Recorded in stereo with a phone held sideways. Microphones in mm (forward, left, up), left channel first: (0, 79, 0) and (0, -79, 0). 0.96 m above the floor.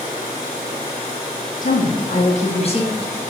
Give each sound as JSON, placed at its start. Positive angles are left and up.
{"t": 1.6, "sound": "a woman speaking", "side_deg": 60, "distance_m": 1.7}